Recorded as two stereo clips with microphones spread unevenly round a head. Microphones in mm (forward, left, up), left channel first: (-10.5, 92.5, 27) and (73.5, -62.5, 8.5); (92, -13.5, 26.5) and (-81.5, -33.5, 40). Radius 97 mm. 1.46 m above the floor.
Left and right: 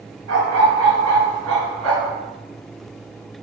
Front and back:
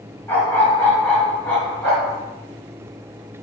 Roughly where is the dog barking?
Right.